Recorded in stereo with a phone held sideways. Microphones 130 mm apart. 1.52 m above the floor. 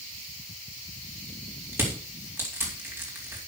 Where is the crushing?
15° right (ahead or behind), 4 m.